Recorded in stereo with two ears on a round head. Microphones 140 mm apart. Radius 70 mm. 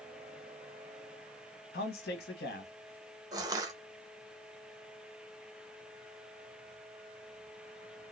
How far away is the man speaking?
About 1.4 m.